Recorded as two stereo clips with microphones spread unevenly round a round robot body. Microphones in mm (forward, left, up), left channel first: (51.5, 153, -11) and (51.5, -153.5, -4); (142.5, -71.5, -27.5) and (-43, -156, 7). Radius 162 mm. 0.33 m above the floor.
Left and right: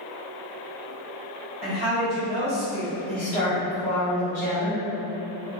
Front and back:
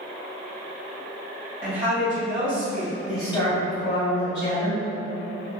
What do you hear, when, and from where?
1.6 s a woman speaking: 140° right, 1.6 m
3.1 s a woman speaking: 65° left, 1.4 m